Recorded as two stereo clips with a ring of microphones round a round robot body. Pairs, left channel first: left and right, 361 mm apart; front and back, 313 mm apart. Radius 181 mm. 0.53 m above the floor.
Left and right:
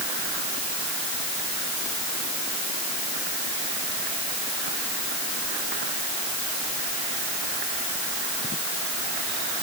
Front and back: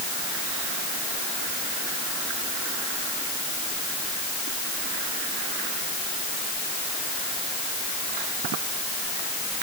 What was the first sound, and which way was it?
Only background noise.